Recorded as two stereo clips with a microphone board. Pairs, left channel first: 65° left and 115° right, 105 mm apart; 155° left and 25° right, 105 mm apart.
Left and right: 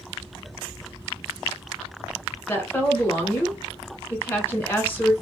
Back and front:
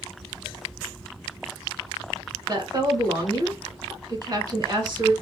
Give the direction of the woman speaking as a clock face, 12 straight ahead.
12 o'clock.